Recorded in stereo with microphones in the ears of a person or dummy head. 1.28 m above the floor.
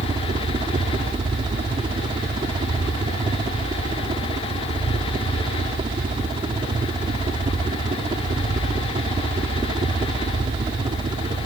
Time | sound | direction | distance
0.0 | a helicopter | 30° right (ahead or behind) | ?